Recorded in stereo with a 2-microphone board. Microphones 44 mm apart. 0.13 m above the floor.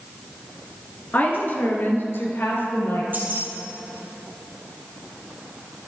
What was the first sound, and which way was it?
A woman speaking, 45° left (ahead or behind).